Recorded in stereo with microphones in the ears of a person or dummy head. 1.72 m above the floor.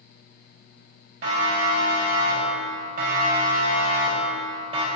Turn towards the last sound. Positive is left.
turn(degrees=-30)  # may be behind; listen again after turning